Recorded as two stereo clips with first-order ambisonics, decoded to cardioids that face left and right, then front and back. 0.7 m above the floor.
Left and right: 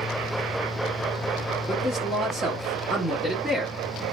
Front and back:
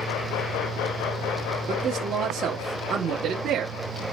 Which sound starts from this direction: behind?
A man speaking, at 1.7 s.